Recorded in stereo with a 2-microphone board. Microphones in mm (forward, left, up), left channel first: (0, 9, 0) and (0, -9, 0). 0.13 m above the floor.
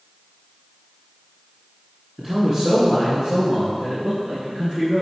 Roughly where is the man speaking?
Right.